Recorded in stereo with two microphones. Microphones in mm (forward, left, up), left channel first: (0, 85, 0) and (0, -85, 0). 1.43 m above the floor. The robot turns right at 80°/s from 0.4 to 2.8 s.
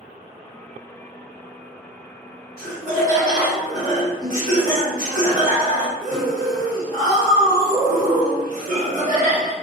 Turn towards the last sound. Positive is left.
turn(degrees=-50)  # may be behind; listen again after turning